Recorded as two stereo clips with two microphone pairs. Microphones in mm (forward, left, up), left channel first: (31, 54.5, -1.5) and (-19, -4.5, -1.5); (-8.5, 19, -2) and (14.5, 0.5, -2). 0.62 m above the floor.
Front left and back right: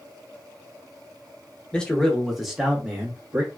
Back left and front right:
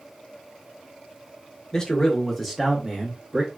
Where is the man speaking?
115° left, 0.8 m; by 3.5 s 75° right, 0.9 m.